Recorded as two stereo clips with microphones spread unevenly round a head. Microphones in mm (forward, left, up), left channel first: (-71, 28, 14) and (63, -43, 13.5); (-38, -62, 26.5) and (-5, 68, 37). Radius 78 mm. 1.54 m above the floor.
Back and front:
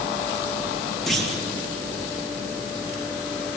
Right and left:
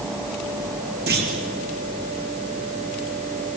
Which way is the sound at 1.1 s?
65° left.